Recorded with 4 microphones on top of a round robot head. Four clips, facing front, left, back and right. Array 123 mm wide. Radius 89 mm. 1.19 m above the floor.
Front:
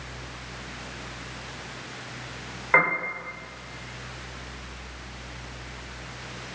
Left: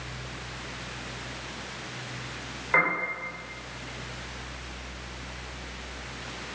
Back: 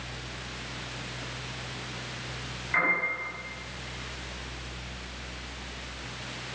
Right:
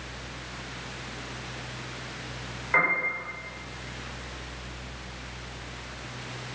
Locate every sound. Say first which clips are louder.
2.7 s a piano: even, front 6 dB; 10° left, 5 m